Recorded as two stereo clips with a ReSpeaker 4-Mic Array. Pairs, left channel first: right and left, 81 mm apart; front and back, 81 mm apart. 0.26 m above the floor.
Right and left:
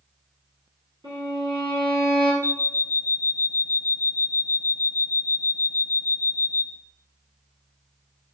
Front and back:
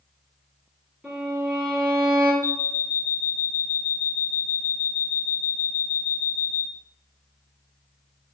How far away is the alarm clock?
About 0.8 m.